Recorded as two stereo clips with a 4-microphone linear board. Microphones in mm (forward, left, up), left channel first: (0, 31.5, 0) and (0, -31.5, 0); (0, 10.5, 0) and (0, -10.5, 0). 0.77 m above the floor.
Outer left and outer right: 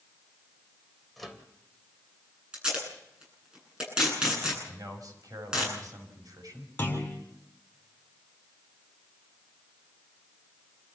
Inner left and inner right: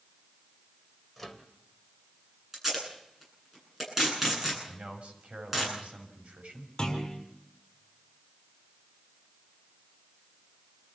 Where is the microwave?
5° left (ahead or behind), 2.5 m.